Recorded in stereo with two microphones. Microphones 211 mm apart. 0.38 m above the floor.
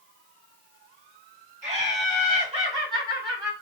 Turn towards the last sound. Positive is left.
turn(degrees=-15)  # may be behind; listen again after turning